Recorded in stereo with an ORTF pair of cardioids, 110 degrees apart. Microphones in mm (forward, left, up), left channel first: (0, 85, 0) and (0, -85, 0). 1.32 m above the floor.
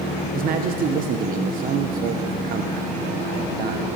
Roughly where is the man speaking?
Ahead right.